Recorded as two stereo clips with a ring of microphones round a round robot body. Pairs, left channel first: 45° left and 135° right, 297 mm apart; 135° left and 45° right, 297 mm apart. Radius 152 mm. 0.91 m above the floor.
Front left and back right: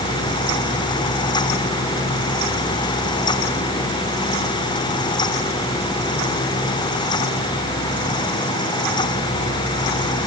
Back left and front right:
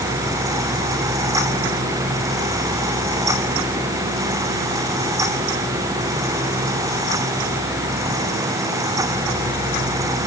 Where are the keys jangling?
I don't hear keys jangling.